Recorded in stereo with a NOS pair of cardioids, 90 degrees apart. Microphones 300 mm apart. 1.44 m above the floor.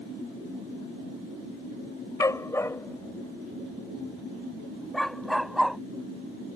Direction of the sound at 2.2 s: 10° left.